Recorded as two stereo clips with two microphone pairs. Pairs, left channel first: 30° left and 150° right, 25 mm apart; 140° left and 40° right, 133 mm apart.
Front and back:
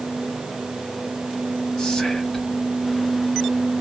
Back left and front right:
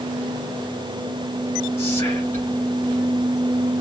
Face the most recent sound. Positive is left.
turn(degrees=80)